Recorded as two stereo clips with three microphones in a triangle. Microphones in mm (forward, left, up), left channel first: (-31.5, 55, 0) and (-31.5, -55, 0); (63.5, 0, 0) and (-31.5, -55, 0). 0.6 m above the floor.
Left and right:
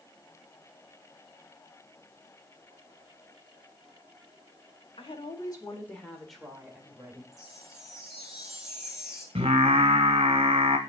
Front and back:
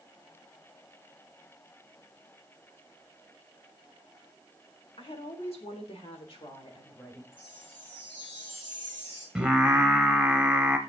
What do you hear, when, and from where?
5.0 s a woman speaking: 65° left, 1.6 m; by 7.2 s 25° right, 2 m
7.3 s a chime: 5° right, 3 m
9.3 s singing: 65° right, 0.9 m